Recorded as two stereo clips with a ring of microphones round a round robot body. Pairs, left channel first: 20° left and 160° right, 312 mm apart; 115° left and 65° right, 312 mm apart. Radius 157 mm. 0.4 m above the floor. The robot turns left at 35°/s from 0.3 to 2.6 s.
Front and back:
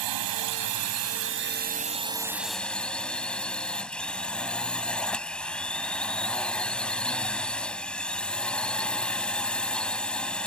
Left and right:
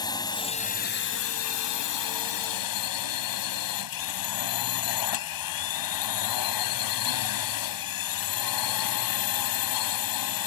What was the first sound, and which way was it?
A drone, 170° right.